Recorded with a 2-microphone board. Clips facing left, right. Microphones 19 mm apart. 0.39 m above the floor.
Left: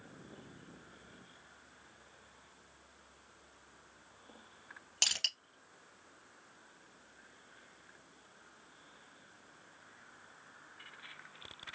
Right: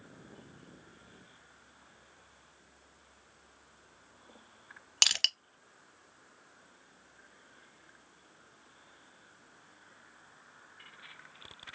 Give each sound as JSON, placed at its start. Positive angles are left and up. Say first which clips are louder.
{"t": 5.0, "sound": "crushing", "louder": "right 6 dB", "side_deg": -55, "distance_m": 0.6}